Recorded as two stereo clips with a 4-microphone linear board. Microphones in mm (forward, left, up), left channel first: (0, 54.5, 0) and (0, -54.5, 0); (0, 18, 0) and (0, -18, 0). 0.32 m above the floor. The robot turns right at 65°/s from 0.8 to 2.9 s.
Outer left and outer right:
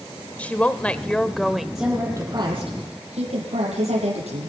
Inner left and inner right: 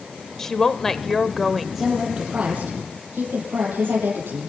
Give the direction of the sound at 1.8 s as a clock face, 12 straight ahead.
6 o'clock.